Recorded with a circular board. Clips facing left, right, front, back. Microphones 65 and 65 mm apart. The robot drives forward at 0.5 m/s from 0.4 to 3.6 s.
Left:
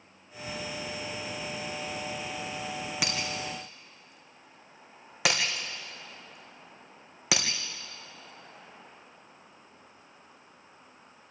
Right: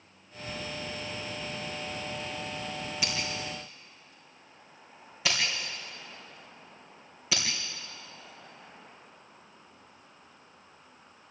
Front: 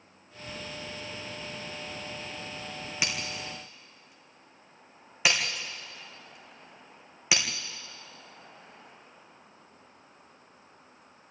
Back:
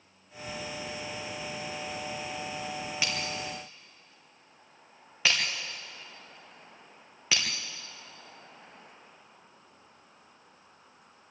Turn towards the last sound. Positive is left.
turn(degrees=75)